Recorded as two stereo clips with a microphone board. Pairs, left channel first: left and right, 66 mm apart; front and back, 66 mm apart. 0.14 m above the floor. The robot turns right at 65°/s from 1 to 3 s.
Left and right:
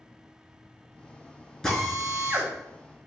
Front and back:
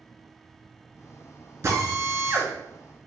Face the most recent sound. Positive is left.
turn(degrees=-105)